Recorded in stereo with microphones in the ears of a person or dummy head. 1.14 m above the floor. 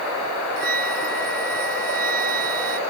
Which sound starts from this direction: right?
A flute, at 0.6 s.